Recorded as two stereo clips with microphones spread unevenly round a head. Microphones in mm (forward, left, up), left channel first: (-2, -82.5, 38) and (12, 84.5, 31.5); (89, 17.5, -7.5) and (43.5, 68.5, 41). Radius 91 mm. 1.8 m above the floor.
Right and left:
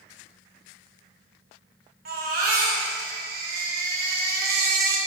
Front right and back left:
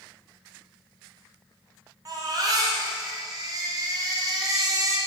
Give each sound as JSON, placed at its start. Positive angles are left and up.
{"t": 2.0, "sound": "a baby crying", "azimuth_deg": 125, "distance_m": 2.5}